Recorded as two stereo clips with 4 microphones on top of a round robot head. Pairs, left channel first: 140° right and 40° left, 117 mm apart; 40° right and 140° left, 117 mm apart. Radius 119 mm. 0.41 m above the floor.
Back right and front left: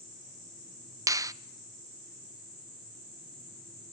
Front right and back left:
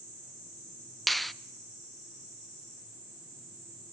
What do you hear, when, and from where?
1.1 s a finger snap: 45° left, 0.6 m